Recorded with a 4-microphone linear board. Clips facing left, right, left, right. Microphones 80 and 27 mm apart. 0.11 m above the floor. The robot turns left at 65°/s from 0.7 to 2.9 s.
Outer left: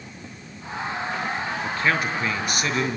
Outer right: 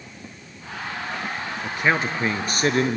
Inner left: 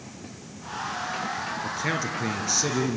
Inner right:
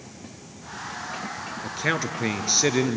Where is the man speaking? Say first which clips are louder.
Outer right 2 dB, inner right 5 dB; 15° right, 1.7 m; by 3.0 s 95° right, 1.7 m.